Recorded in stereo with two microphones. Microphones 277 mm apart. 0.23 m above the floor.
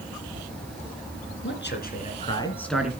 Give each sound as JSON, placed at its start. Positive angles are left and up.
{"t": 1.4, "sound": "a man speaking", "side_deg": 45, "distance_m": 2.5}